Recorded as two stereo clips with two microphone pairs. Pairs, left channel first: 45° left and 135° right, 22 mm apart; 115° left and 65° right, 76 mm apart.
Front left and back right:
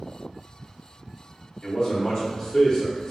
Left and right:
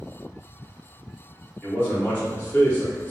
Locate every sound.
1.6 s a man speaking: 55° left, 0.9 m